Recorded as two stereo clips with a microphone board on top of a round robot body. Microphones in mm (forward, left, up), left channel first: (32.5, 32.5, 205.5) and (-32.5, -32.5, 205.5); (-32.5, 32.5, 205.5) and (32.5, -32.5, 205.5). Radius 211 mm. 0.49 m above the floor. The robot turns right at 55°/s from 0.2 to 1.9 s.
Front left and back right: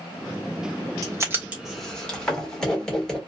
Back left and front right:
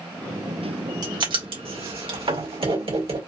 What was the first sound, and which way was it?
Writing, 85° right.